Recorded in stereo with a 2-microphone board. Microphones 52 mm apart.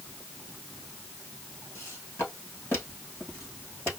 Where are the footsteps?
45° left (ahead or behind), 4 m.